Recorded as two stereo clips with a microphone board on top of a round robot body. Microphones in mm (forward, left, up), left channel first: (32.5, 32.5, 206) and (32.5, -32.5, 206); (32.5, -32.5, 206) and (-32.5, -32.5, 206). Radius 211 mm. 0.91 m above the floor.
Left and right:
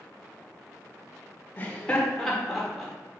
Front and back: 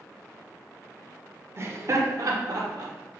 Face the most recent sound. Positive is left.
turn(degrees=-175)